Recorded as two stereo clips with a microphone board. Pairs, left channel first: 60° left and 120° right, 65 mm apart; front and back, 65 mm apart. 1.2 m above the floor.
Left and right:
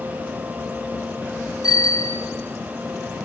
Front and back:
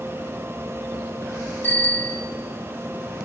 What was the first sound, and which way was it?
A bicycle bell, 60° left.